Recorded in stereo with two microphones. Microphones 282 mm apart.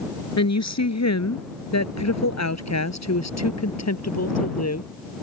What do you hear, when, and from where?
0.4 s a woman speaking: 65° left (ahead or behind); by 4.9 s 60° left (ahead or behind)